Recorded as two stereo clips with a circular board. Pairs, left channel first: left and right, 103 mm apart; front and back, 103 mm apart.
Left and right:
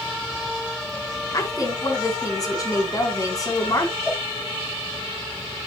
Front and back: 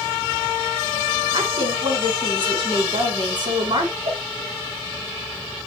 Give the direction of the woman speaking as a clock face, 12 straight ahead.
7 o'clock.